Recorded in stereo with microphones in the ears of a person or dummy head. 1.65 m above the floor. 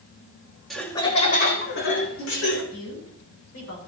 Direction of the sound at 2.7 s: 85° left.